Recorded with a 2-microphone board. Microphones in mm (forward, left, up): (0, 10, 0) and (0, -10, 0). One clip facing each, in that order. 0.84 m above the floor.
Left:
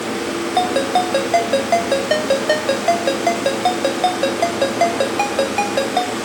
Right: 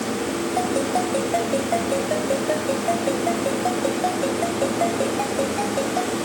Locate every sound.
0.6 s a ringtone: 85° left